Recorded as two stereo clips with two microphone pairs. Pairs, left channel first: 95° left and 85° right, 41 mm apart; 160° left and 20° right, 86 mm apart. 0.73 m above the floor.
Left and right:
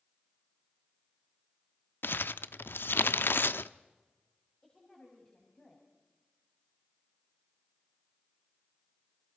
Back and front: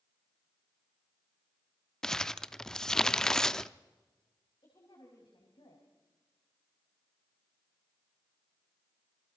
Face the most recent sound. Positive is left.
turn(degrees=160)